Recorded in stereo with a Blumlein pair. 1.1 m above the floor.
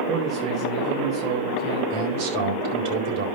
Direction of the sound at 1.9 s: 55° right.